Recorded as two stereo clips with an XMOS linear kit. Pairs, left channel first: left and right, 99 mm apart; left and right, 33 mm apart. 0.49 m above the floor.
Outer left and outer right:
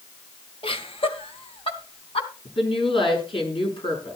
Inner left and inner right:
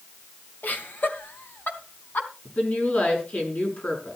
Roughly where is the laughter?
Left.